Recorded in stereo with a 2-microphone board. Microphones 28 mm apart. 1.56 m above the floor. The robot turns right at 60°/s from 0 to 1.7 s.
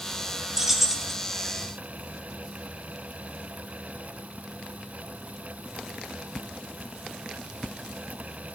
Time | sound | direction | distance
0.6 | keys jangling | 30° right | 0.8 m